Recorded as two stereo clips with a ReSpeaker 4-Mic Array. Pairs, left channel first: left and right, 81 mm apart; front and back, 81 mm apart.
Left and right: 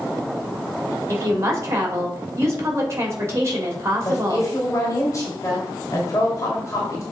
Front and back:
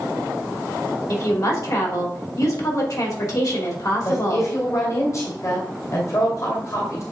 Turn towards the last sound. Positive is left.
turn(degrees=45)